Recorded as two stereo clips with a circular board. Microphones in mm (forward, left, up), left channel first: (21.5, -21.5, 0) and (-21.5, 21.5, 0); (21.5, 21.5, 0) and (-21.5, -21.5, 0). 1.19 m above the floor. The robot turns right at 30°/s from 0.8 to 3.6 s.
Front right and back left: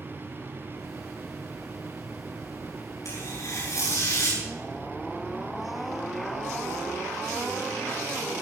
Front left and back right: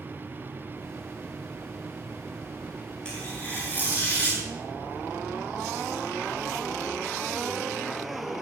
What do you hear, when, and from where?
3.0 s tearing paper: 30° right, 8.5 m; by 4.4 s 10° right, 8.5 m